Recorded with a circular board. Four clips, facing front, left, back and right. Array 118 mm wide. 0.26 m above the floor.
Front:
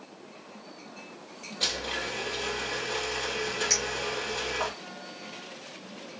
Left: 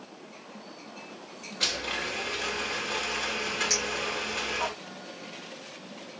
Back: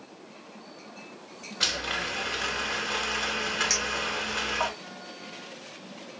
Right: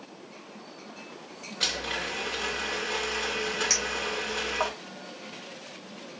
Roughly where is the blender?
Behind.